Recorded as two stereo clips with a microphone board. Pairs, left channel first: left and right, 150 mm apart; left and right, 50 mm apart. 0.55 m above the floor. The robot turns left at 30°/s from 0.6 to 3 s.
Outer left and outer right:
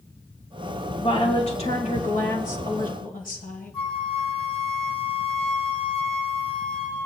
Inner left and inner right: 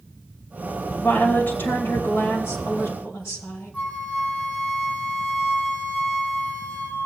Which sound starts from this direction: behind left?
A woman speaking, at 1.0 s.